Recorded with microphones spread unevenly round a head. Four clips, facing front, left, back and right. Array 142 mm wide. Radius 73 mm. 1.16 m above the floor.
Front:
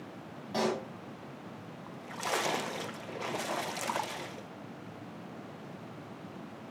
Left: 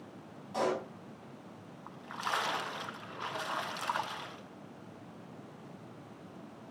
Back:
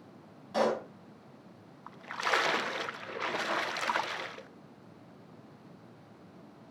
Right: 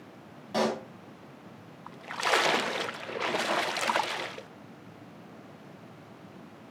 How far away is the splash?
About 0.6 m.